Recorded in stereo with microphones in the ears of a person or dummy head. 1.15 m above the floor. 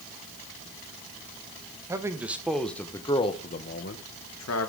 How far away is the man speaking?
About 1.5 m.